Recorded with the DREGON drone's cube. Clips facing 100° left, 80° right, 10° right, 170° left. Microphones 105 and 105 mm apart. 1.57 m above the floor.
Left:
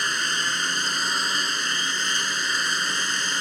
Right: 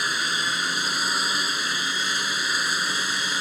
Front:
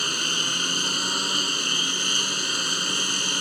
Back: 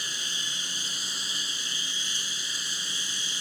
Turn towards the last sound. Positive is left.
turn(degrees=5)